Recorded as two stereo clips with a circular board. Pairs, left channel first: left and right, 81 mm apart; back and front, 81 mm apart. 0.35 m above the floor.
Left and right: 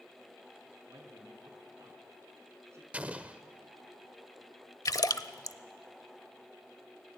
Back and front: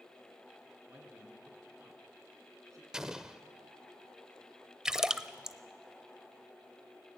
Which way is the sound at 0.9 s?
50° right.